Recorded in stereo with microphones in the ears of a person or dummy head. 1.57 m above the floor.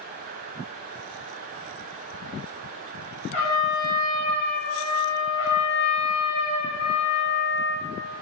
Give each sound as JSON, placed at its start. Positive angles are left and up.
{"t": 3.3, "sound": "a trumpet", "side_deg": 65, "distance_m": 1.5}
{"t": 5.4, "sound": "a trumpet", "side_deg": 45, "distance_m": 1.4}